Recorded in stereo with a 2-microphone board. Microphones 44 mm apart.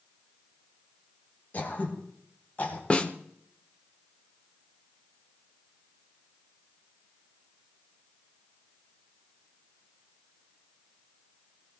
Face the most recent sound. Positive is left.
turn(degrees=25)  # may be behind; listen again after turning